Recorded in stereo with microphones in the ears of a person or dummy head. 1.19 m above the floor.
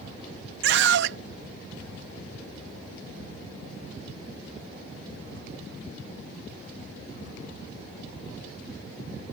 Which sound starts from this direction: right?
A scream, at 0.6 s.